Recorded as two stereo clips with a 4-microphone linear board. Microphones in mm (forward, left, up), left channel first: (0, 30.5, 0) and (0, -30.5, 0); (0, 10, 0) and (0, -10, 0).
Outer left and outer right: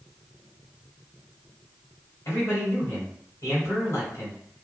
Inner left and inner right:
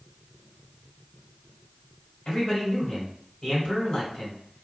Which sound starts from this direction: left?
A man speaking, at 2.2 s.